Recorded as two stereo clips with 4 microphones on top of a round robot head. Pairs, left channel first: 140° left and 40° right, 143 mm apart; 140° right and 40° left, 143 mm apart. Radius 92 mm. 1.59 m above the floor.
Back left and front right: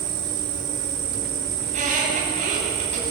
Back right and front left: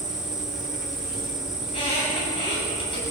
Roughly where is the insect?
Ahead right.